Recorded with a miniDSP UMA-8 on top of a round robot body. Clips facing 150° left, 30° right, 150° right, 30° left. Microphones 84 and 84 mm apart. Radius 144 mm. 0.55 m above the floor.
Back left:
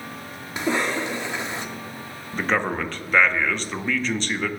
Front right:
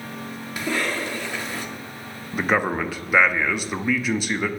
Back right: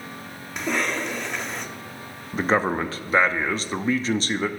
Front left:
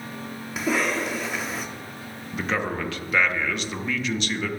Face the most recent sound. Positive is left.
turn(degrees=-110)